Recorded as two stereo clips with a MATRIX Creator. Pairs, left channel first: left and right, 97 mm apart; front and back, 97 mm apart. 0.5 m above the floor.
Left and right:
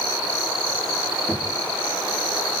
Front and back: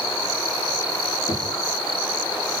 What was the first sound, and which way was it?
Knocking, 10° right.